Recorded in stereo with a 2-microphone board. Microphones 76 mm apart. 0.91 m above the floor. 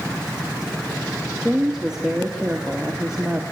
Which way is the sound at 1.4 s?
10° right (ahead or behind).